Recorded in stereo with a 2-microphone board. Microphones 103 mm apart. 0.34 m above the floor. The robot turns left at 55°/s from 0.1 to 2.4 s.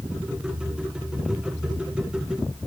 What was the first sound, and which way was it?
Only background noise.